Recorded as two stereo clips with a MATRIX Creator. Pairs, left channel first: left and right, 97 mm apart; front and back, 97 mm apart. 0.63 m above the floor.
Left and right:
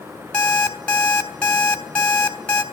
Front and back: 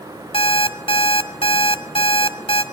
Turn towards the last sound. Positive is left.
turn(degrees=15)